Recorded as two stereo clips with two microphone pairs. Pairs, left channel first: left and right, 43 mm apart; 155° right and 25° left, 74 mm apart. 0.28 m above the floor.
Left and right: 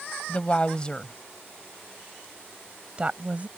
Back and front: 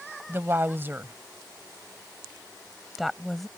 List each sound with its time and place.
0.3 s a woman speaking: 55° left; by 3.5 s 70° right